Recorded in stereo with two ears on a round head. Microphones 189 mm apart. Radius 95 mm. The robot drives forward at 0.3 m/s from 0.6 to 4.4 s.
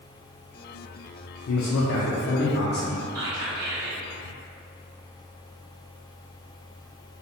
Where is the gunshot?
I don't hear a gunshot.